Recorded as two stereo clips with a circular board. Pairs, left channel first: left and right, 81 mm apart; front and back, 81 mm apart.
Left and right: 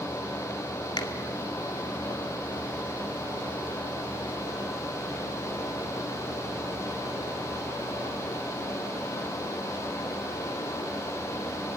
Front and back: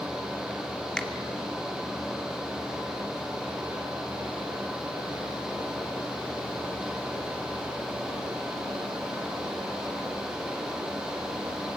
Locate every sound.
1.0 s a finger snap: 80° left, 2.0 m